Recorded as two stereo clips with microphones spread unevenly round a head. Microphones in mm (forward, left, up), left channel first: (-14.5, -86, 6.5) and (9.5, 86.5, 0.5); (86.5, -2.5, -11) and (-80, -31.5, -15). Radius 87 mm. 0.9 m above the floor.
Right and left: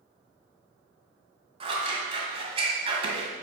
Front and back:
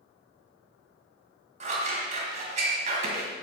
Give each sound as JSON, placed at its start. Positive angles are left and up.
{"t": 1.6, "sound": "scissors", "azimuth_deg": 140, "distance_m": 1.5}